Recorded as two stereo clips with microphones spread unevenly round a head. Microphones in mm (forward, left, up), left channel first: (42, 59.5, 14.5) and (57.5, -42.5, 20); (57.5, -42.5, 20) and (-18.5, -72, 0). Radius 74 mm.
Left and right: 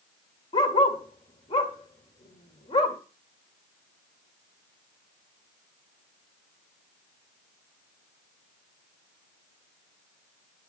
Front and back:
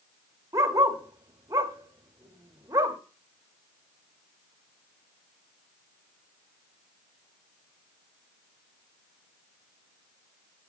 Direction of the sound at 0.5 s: 135° left.